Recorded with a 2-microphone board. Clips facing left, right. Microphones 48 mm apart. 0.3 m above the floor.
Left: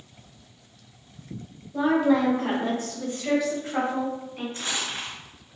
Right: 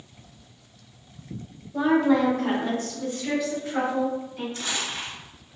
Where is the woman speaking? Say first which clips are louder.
Right 1 dB; centre (ahead or behind), 0.9 m; by 4.4 s 50° left (ahead or behind), 1.5 m.